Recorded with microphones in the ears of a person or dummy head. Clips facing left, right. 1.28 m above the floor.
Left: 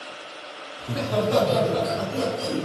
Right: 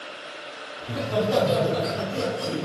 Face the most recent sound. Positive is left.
turn(degrees=-40)  # may be behind; listen again after turning